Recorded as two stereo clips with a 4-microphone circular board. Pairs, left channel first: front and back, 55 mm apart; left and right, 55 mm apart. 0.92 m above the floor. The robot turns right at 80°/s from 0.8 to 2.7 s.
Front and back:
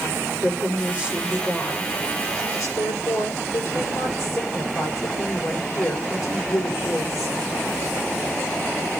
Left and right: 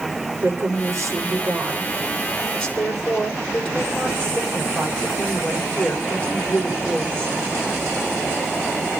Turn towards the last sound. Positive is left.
turn(degrees=25)